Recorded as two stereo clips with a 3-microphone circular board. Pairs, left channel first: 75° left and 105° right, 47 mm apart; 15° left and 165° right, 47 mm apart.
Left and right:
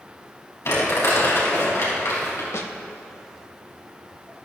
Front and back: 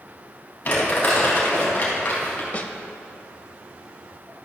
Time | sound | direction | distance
0.7 | crumpling | 60° left | 4 m
2.5 | a snare drum | 70° left | 0.9 m